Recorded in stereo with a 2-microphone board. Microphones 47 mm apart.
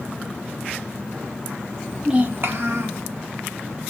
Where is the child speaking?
10° left (ahead or behind), 0.6 m; by 3.0 s 75° right (ahead or behind), 1.4 m.